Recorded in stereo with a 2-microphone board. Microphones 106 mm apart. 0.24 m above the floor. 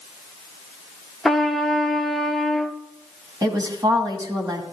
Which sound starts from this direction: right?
A woman speaking, at 3.4 s.